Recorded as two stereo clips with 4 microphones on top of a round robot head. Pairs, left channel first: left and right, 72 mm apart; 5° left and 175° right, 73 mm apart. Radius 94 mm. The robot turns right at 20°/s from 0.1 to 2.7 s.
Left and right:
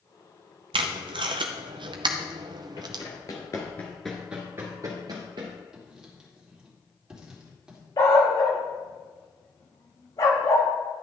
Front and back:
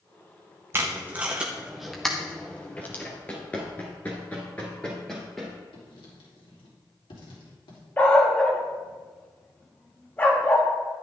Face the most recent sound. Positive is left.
turn(degrees=70)